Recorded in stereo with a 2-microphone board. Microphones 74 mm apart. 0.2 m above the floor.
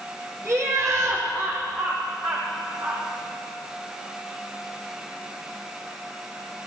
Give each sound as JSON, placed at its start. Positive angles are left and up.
{"t": 0.5, "sound": "laughter", "side_deg": -40, "distance_m": 7.0}